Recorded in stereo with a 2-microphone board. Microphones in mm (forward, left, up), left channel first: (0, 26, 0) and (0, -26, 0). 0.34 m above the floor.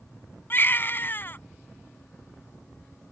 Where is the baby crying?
45° left (ahead or behind).